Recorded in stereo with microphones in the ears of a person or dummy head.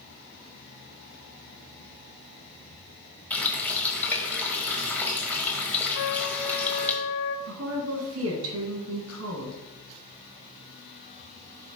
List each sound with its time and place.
3.3 s a running tap: 10° left (ahead or behind), 1.0 m
6.0 s a trumpet: 60° left (ahead or behind), 0.6 m
7.5 s a woman speaking: 70° right (ahead or behind), 1.3 m